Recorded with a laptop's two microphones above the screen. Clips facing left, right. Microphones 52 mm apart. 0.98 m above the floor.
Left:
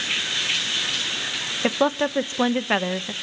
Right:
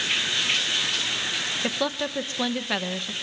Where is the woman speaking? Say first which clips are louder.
Left 9 dB; 30° left (ahead or behind), 0.7 m.